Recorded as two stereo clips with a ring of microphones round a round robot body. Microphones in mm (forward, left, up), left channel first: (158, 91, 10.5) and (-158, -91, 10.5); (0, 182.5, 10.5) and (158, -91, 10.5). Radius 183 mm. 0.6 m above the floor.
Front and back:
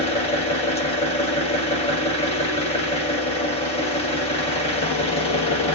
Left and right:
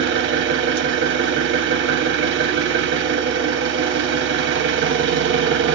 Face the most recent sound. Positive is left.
turn(degrees=-35)